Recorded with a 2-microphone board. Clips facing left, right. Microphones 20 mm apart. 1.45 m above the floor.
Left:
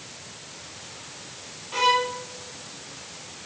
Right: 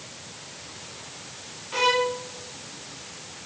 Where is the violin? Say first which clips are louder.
Left 1 dB; 5° right (ahead or behind), 0.7 m.